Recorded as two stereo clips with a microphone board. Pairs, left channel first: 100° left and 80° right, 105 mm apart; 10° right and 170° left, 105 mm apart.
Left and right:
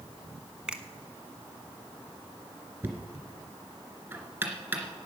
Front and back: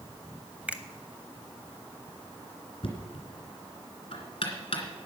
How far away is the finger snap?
About 0.8 m.